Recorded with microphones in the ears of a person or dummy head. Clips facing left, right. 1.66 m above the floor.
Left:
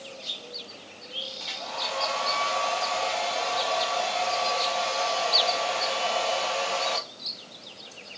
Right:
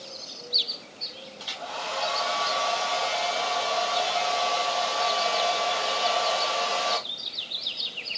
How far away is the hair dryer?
About 1.6 m.